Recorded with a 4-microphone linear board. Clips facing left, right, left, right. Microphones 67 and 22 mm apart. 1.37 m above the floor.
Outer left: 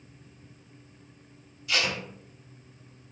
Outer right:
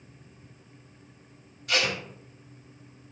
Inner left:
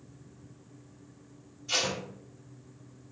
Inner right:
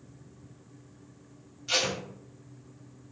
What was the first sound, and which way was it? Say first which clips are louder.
Tape being pulled: outer right 1 dB, inner right 2 dB; 50° right (ahead or behind).